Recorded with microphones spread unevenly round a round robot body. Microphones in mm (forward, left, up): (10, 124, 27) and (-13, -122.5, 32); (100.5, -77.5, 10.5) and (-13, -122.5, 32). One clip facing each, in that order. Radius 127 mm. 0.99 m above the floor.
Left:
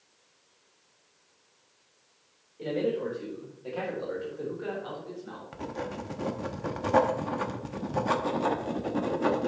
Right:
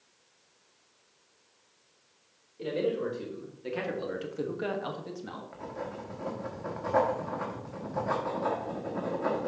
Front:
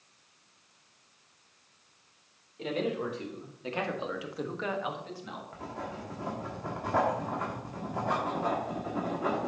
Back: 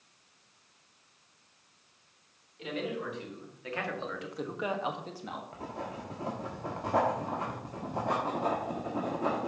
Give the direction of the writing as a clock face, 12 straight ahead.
8 o'clock.